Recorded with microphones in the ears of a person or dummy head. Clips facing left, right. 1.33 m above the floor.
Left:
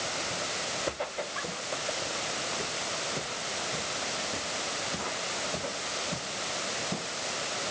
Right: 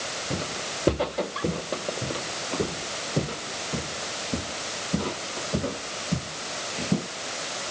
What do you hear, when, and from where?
0.3 s footsteps: 60° right (ahead or behind); by 7.1 s 45° right (ahead or behind)